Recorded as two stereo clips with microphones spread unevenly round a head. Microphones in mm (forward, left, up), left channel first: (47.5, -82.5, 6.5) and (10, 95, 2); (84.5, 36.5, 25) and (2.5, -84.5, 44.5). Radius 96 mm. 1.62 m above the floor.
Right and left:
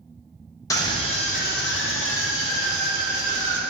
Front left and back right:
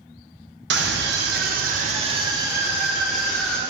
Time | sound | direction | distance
0.7 | a scream | 150° right | 1.2 m